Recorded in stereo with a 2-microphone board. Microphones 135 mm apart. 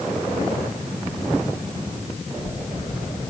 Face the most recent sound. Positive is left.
No sound to turn to.